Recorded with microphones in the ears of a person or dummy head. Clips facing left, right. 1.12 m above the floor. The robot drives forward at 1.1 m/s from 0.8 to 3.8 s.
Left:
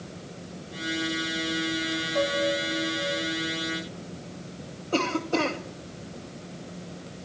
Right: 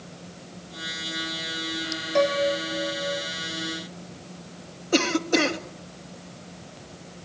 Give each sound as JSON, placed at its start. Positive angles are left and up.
{"t": 2.1, "sound": "a piano", "side_deg": -65, "distance_m": 2.5}
{"t": 4.9, "sound": "a cough", "side_deg": -20, "distance_m": 2.0}